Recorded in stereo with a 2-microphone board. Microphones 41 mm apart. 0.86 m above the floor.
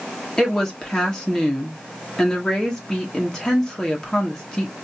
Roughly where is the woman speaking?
Centre.